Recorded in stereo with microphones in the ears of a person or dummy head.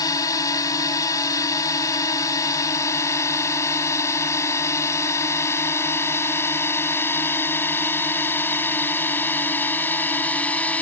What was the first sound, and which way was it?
A drone, 20° left (ahead or behind).